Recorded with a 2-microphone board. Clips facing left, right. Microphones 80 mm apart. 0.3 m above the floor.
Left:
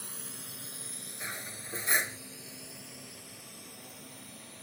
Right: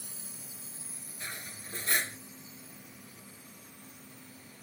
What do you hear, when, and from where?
0.0 s a drone: 65° left (ahead or behind); by 4.6 s 70° left (ahead or behind)
1.2 s cutlery clinking: 20° left (ahead or behind)